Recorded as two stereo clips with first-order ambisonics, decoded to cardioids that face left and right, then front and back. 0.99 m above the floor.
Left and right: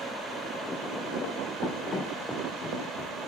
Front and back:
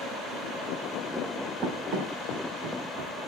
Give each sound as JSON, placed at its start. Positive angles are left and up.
{"t": 1.6, "sound": "running footsteps", "azimuth_deg": 150, "distance_m": 2.5}